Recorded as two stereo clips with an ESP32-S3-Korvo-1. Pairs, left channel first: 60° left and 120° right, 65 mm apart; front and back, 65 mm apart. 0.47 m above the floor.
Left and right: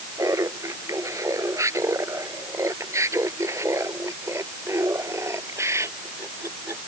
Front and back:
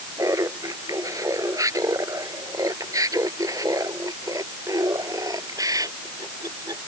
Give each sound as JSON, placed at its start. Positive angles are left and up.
{"t": 0.2, "sound": "laughter", "azimuth_deg": -150}